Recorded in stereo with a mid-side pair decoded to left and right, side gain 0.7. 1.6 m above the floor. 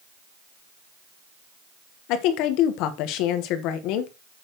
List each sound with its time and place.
2.1 s a woman speaking: 65° left, 1.5 m